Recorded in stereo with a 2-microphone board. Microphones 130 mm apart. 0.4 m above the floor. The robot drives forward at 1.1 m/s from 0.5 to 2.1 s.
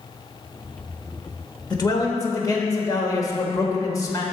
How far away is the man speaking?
About 1.0 m.